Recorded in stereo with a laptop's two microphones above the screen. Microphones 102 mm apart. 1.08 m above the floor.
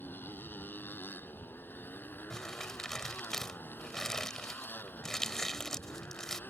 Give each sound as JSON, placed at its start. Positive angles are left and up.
{"t": 0.0, "sound": "a motorcycle", "side_deg": 20}
{"t": 2.3, "sound": "crumpling", "side_deg": 5}